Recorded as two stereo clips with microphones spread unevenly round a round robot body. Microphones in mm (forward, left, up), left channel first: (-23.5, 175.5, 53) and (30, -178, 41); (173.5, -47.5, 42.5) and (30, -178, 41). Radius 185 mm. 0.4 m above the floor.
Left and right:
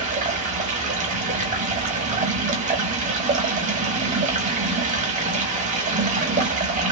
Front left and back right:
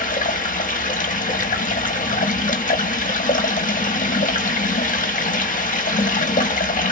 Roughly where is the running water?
Ahead.